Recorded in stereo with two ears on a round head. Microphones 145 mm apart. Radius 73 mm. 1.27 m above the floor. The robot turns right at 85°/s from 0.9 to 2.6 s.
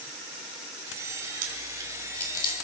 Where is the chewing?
55° right (ahead or behind), 3.5 m; by 2.5 s 40° left (ahead or behind), 3.5 m.